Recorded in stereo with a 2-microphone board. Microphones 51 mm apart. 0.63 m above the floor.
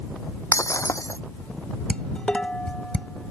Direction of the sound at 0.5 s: 70° left (ahead or behind).